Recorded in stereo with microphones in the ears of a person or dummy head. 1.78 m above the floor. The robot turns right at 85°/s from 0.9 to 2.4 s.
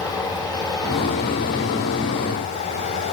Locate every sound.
0.0 s running water: 20° left, 5 m; by 3.1 s 150° left, 5 m